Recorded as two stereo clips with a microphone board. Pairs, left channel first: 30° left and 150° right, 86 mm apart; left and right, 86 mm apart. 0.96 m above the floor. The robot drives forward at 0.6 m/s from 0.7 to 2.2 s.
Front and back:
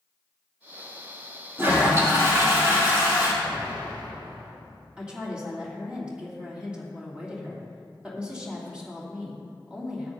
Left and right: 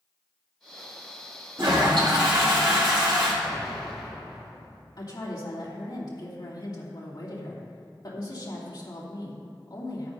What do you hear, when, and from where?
1.6 s a toilet flushing: 90° right, 3 m; by 3.3 s 95° right, 3 m
3.4 s an explosion: 175° left, 4 m
5.0 s a woman speaking: 130° left, 2.5 m